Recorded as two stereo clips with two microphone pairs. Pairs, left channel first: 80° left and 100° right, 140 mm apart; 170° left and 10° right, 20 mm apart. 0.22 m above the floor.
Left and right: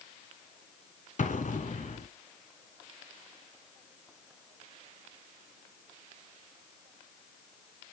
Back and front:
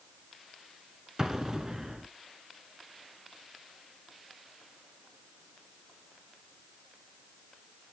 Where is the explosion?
55° left, 0.7 m.